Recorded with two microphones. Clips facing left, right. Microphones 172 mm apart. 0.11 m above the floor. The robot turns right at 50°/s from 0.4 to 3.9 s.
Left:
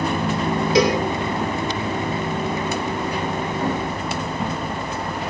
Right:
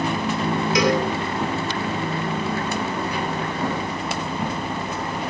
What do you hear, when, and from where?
0.8 s a cowbell: 30° left (ahead or behind), 2.5 m; by 1.0 s 35° left (ahead or behind), 2.5 m